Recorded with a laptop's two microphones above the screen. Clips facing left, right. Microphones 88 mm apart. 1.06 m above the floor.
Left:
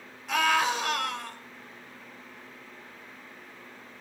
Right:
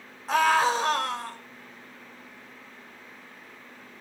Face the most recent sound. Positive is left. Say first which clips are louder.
# right 4 dB
turn(degrees=-35)  # may be behind; listen again after turning